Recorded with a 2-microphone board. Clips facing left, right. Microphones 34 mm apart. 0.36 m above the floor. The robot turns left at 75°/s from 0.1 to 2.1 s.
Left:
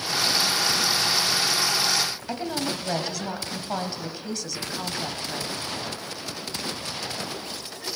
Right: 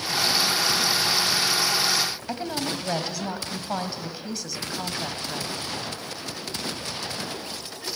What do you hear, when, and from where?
2.3 s a woman speaking: 5° right (ahead or behind), 2.5 m